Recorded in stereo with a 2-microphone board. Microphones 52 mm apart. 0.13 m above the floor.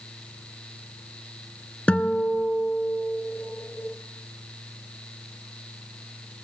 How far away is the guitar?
About 0.8 m.